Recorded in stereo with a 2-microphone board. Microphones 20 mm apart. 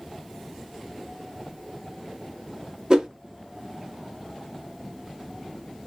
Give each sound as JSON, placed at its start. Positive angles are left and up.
{"t": 2.9, "sound": "a whoosh", "side_deg": -45, "distance_m": 0.6}